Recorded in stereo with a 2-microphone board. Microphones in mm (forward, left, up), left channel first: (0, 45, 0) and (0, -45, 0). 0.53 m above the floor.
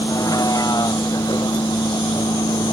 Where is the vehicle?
40° left (ahead or behind); by 2.7 s 55° left (ahead or behind).